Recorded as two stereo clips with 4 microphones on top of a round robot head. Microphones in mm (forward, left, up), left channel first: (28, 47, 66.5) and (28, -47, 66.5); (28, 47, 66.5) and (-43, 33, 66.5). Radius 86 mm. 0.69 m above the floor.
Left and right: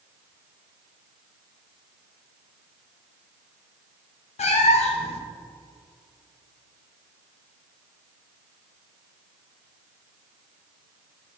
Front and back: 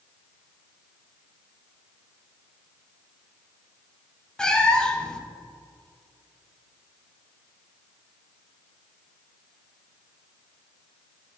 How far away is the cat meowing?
About 0.9 m.